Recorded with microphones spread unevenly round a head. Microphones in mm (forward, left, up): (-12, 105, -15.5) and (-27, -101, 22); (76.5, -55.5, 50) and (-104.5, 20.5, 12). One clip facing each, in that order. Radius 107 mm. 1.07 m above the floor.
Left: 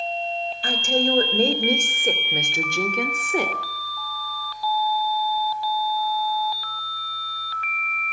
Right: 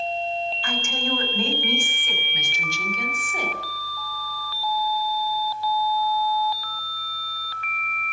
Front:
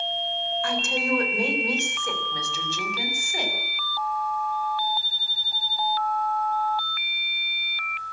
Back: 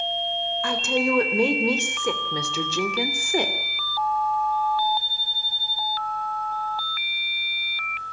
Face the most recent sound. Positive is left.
turn(degrees=115)